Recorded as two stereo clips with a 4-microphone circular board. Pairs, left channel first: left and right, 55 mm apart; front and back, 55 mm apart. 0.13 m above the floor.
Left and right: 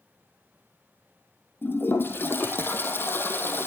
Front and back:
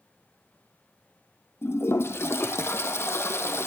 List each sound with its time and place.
1.6 s a toilet flushing: 40° left, 1.6 m